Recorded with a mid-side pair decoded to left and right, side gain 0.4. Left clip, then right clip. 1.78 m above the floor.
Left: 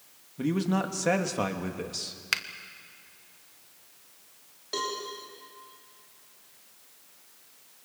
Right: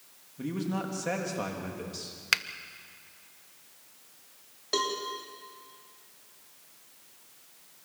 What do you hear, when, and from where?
0.4 s a man speaking: 50° left, 3 m
2.3 s a finger snap: 20° right, 1.2 m
4.7 s a cowbell: 40° right, 5 m